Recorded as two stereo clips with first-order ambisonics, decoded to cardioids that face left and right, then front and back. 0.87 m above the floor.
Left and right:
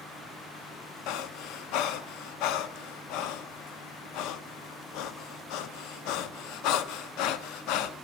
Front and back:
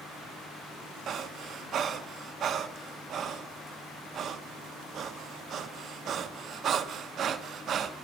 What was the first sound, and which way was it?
Breathing, 120° left.